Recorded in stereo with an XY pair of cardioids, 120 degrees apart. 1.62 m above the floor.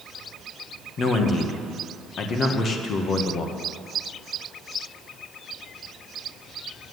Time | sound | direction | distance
1.0 | a man speaking | 45° left | 1.7 m